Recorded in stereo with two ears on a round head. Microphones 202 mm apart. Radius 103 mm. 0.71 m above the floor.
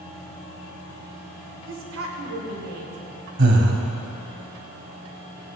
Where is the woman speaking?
55° right (ahead or behind), 2 m; by 3.3 s 80° right, 2.5 m.